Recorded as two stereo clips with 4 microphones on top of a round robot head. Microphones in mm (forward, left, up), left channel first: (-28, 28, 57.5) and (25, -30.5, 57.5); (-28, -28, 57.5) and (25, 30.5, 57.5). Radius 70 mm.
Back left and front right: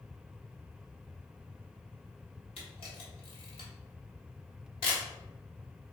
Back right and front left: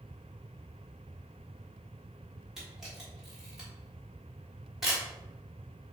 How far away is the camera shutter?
About 1.5 m.